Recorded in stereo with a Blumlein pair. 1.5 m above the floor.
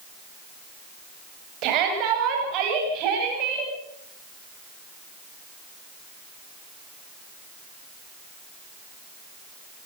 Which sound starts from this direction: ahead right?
A shout, at 1.6 s.